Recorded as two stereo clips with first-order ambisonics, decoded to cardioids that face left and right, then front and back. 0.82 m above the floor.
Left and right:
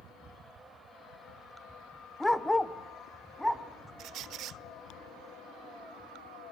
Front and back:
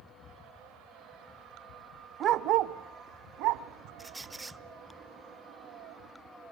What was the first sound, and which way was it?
A dog barking, 170° left.